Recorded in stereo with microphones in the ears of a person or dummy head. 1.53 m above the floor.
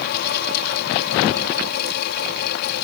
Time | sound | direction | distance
0.0 | a fan | 60° left (ahead or behind) | ?